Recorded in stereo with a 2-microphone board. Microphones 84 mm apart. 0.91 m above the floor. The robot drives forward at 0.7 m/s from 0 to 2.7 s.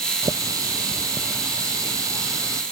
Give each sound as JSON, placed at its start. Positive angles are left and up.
{"t": 0.2, "sound": "a running tap", "side_deg": -45}